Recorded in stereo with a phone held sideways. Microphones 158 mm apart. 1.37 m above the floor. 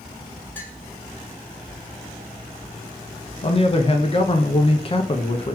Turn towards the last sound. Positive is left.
turn(degrees=35)  # may be behind; listen again after turning